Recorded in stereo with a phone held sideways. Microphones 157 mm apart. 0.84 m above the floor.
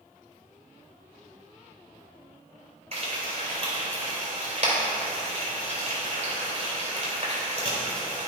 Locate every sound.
2.9 s frying: 45° right (ahead or behind), 3.5 m